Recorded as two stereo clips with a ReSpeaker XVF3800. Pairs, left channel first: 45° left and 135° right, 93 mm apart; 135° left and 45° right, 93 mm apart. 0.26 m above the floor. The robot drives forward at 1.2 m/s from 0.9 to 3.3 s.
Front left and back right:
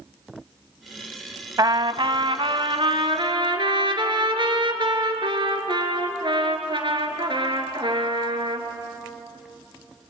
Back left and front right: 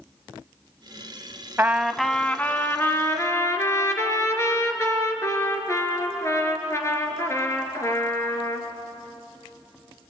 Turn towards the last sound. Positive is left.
turn(degrees=-165)